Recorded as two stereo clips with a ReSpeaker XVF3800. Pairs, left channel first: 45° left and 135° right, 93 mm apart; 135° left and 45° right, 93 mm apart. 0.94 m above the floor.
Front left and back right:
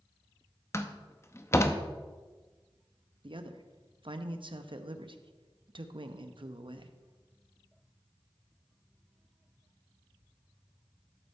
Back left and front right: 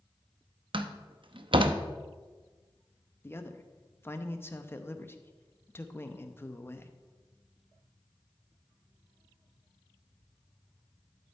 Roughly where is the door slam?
Ahead.